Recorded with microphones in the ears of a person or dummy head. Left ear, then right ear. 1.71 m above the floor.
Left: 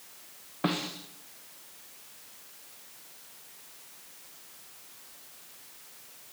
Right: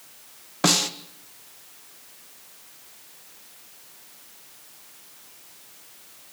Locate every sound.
0.6 s a snare drum: 75° right (ahead or behind), 2.0 m